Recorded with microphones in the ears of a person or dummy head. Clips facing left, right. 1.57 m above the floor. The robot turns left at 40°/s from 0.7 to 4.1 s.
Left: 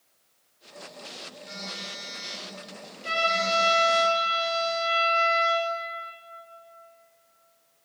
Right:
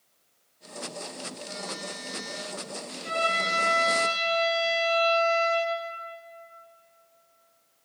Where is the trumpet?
60° left, 2.5 m; by 5.7 s 20° left, 2.5 m.